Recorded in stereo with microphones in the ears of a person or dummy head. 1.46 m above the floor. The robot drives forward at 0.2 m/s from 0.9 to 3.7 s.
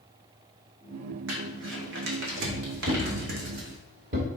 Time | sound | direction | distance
1.3 | crumpling | 75° right (ahead or behind) | 1.5 m
2.9 | a thud | 30° right (ahead or behind) | 1.0 m